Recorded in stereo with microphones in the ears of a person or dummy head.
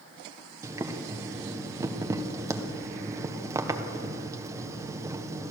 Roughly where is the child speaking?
No child speaking in this recording.